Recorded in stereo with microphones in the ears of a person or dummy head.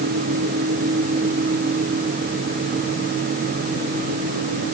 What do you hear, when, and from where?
Only background noise.